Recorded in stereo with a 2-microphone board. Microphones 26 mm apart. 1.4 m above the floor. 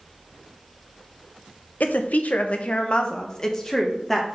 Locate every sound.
1.8 s a woman speaking: 85° left, 0.9 m; by 4.3 s 10° left (ahead or behind), 1.5 m